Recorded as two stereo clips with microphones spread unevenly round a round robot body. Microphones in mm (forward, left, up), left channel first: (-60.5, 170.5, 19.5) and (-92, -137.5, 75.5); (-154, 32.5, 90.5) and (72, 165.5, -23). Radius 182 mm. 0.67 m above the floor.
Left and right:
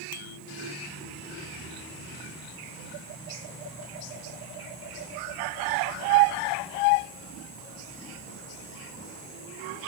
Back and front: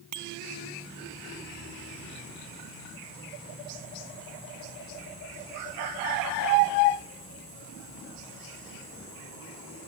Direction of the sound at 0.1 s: 35° left.